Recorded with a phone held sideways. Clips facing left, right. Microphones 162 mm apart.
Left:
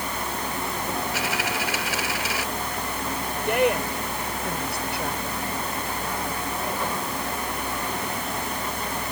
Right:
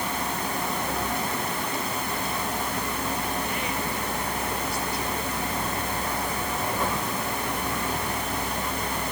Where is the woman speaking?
70° left (ahead or behind).